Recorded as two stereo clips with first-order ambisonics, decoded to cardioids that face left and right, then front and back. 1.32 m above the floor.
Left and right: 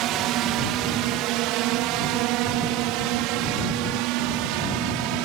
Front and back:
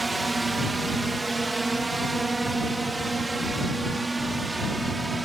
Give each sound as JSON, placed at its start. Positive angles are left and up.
{"t": 0.0, "sound": "a drone", "azimuth_deg": -100}